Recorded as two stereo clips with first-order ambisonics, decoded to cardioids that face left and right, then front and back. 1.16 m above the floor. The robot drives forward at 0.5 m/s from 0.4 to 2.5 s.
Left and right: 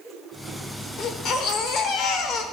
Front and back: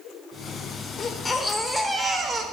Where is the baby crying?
55° left, 1.0 m; by 2.4 s 120° left, 1.0 m.